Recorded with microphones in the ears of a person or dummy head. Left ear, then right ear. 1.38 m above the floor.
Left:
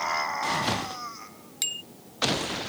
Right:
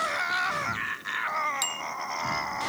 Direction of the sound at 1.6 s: Centre (ahead or behind).